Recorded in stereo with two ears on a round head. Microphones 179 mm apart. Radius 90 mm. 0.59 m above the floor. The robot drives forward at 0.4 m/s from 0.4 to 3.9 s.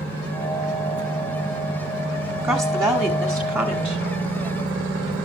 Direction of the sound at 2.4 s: 10° right (ahead or behind).